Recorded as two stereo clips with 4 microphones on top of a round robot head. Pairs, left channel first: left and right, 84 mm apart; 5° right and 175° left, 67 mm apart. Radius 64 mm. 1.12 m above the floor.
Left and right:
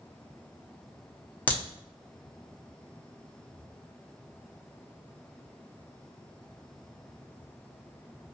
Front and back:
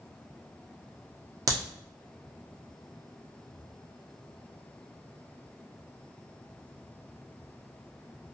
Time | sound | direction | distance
1.5 | a crack | 155° left | 0.8 m